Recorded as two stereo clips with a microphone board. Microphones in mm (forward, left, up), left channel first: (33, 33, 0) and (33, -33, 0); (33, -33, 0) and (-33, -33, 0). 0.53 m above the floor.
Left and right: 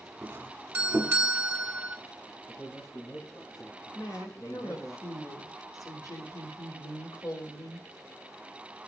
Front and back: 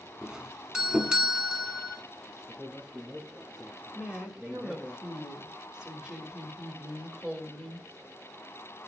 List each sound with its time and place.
0.2 s a doorbell: 120° right, 1.3 m
2.5 s a man speaking: 100° left, 6.5 m
4.0 s a woman speaking: 100° left, 2.5 m